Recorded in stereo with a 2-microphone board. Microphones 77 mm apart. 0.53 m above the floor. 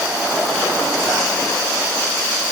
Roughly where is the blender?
No blender in this recording.